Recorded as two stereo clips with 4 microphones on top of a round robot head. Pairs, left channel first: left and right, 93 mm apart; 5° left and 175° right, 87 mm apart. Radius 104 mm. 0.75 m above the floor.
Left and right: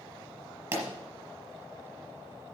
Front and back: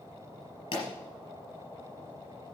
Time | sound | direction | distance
0.7 | a pop | 30° right | 4.5 m